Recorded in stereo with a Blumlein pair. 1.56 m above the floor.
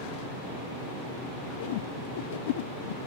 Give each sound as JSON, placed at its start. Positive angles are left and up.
{"t": 1.6, "sound": "a whoosh", "azimuth_deg": 55}